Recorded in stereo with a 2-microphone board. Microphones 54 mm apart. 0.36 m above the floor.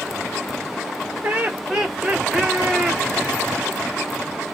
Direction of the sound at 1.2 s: 25° right (ahead or behind).